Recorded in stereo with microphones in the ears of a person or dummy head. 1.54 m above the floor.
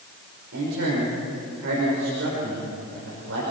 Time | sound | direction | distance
0.5 | a man speaking | 70° right (ahead or behind) | 6 m